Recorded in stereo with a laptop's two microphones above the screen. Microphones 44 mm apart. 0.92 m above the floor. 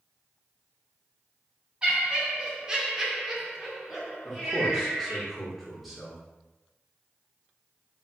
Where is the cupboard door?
No cupboard door in this recording.